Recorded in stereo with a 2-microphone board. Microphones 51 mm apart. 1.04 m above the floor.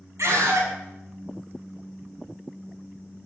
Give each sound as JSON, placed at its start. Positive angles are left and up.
{"t": 0.2, "sound": "a scream", "side_deg": -70, "distance_m": 7.0}